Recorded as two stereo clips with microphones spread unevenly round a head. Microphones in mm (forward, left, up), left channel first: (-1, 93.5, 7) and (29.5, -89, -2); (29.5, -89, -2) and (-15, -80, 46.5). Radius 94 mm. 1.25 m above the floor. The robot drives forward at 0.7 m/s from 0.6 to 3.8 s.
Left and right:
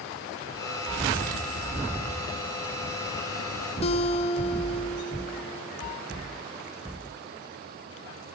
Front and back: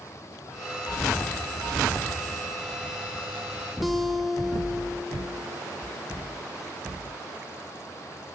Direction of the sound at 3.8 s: 45° left.